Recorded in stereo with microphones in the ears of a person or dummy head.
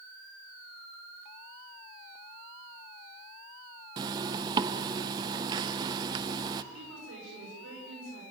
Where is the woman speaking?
90° right, 5 m.